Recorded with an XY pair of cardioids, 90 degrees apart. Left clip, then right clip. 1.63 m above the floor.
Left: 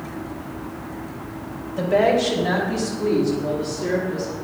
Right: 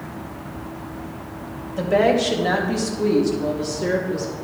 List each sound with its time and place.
1.8 s a woman speaking: 20° right, 2.5 m; by 4.3 s 80° right, 3 m